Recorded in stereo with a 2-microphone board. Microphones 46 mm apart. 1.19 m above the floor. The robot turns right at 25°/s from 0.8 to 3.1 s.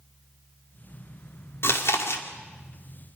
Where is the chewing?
60° left (ahead or behind), 2.0 m; by 2.2 s 75° left (ahead or behind), 2.0 m.